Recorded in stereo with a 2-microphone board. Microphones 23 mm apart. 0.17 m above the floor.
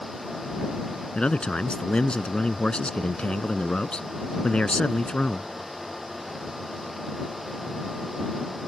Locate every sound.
1.1 s a man speaking: 45° left (ahead or behind)